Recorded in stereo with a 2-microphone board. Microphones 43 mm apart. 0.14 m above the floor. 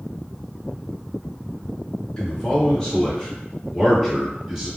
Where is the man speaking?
20° left (ahead or behind), 1.9 m; by 4.7 s 15° right (ahead or behind), 1.7 m.